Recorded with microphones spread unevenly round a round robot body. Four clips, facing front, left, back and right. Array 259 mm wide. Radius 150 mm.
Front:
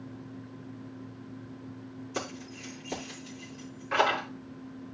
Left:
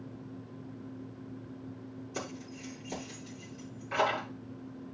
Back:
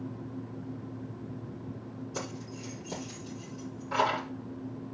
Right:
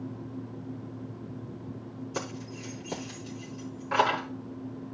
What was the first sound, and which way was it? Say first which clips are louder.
Keys jangling: right 4 dB, front 3 dB; 90° right.